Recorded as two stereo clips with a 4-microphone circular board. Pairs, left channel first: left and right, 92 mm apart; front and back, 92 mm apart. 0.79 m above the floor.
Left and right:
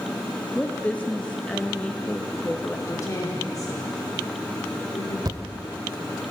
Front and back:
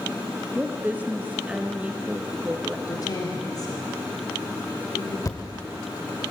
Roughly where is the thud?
Ahead right.